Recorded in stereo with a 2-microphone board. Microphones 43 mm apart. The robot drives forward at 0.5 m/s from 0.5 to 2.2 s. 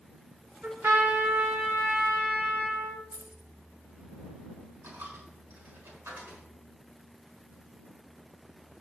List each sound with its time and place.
0.6 s a trumpet: 65° right (ahead or behind), 3.5 m; by 3.0 s 55° right (ahead or behind), 4 m
3.1 s keys jangling: 55° right (ahead or behind), 1.3 m
4.8 s a dropped coin: 75° right (ahead or behind), 5 m